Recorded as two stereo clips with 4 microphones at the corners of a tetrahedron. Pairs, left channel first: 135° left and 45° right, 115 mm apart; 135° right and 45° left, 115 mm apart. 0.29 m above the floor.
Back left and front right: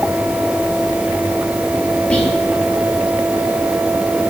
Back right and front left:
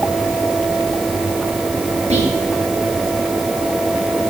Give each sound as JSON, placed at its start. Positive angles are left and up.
{"t": 2.1, "sound": "whispering", "azimuth_deg": 55, "distance_m": 4.5}